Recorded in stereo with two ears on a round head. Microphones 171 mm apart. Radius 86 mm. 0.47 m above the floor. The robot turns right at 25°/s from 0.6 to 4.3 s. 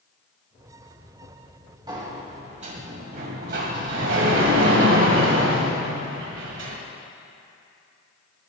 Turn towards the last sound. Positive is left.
turn(degrees=-95)